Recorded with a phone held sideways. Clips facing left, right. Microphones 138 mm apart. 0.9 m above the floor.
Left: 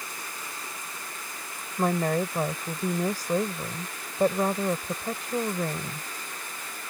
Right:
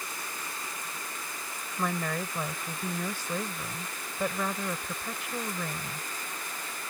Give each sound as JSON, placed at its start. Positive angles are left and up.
{"t": 1.8, "sound": "a woman speaking", "side_deg": 40}